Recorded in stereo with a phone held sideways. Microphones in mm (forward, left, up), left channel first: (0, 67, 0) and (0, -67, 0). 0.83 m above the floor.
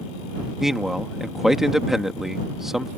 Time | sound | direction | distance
0.6 | a man speaking | centre (ahead or behind) | ?